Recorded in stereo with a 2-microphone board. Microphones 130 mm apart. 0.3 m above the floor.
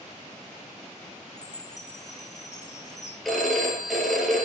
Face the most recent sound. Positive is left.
turn(degrees=0)  # may be behind; listen again after turning